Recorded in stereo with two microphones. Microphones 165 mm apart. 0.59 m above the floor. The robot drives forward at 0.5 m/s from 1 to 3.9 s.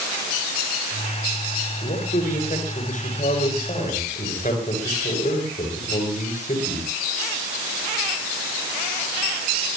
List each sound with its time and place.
1.8 s a man speaking: 55° left (ahead or behind), 8.5 m; by 6.9 s 50° left (ahead or behind), 9.5 m